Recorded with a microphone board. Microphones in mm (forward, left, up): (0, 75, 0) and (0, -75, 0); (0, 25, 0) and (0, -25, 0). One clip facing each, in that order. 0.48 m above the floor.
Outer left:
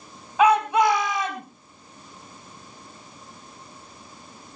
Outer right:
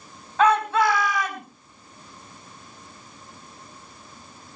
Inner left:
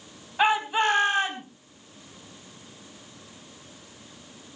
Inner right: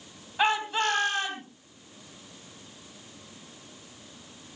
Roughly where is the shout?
Centre.